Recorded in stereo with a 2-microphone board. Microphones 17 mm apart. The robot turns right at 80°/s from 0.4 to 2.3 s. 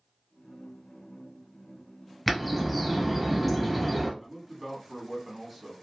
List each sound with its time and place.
2.3 s a bird: 5° right (ahead or behind), 1.0 m
4.2 s a man speaking: 10° right (ahead or behind), 1.1 m